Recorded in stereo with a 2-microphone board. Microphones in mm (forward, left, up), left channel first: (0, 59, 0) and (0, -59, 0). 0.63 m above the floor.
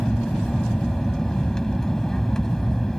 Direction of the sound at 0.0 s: 5° left (ahead or behind).